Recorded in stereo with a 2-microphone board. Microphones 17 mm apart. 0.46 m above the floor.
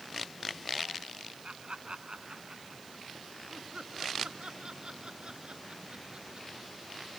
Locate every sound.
1.4 s laughter: 75° right (ahead or behind); by 7.1 s 50° right (ahead or behind)